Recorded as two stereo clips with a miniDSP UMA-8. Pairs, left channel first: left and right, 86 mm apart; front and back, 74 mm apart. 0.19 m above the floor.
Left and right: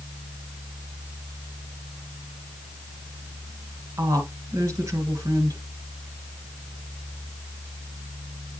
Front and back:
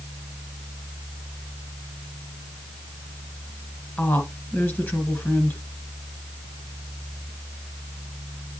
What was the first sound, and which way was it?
A woman speaking, 55° right.